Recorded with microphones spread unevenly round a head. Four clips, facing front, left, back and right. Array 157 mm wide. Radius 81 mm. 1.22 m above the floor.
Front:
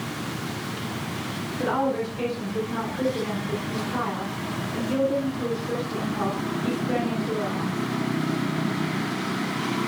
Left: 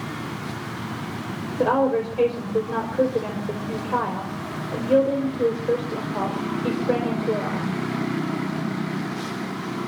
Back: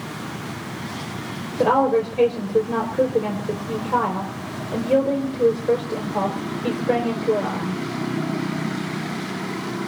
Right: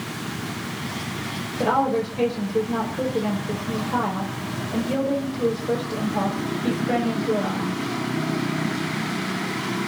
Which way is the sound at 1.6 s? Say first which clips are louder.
Left 1 dB, back 7 dB; 160° left.